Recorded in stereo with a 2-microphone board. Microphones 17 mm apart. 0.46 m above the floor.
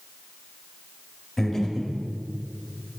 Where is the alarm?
I don't hear an alarm.